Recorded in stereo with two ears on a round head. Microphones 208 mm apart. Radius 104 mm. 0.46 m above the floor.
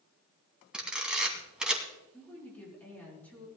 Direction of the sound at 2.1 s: 5° left (ahead or behind).